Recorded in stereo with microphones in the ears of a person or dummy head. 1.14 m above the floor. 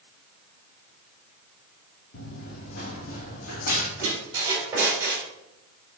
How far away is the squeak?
About 3 m.